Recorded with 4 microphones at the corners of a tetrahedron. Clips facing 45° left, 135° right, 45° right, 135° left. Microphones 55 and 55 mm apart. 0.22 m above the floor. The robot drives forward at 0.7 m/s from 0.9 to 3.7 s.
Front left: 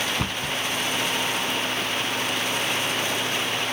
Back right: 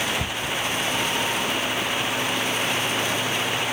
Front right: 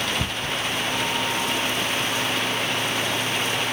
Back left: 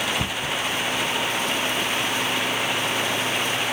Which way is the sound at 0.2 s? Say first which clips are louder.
Even, back left 1 dB; 60° left.